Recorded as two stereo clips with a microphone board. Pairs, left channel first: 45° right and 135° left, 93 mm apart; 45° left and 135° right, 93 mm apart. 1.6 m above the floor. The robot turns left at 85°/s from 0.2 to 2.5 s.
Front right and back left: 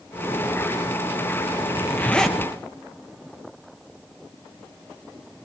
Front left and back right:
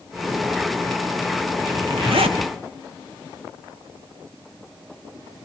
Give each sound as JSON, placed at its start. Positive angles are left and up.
{"t": 1.7, "sound": "a zipper", "azimuth_deg": -85, "distance_m": 1.8}